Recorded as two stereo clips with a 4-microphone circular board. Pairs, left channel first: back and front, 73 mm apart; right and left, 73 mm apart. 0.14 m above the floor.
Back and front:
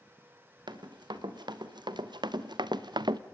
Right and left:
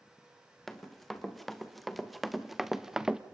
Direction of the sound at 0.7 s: 5° right.